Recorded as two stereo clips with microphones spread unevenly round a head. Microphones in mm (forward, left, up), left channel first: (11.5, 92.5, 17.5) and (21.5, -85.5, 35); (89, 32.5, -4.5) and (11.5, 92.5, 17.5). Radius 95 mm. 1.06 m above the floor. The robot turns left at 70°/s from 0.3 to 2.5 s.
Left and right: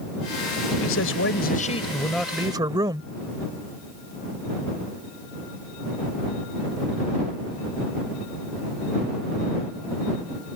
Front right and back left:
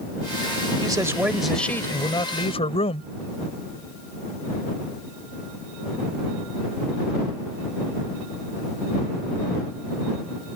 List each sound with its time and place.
0.8 s a man speaking: 100° left; by 3.1 s 20° right